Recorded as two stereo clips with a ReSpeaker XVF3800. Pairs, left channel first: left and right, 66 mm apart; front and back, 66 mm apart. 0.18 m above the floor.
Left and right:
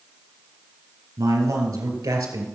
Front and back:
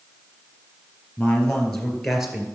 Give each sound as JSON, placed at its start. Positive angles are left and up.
{"t": 1.2, "sound": "a man speaking", "azimuth_deg": -75, "distance_m": 3.0}